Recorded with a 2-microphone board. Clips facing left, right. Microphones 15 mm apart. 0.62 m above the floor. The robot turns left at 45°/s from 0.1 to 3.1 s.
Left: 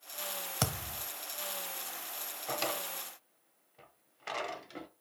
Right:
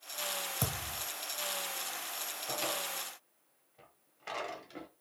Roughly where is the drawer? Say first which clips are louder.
Left 1 dB; left.